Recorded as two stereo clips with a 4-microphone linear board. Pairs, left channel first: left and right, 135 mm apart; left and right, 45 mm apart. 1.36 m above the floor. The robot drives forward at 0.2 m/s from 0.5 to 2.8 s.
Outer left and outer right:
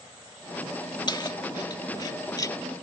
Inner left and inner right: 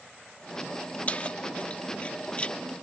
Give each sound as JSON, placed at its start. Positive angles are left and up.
{"t": 1.1, "sound": "keys jangling", "side_deg": 30}